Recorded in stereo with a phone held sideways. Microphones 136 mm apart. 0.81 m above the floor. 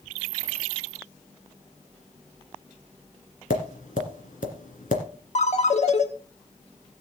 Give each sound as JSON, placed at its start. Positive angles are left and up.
{"t": 3.5, "sound": "tapping", "side_deg": 75, "distance_m": 2.0}
{"t": 5.3, "sound": "a ringtone", "side_deg": 55, "distance_m": 1.3}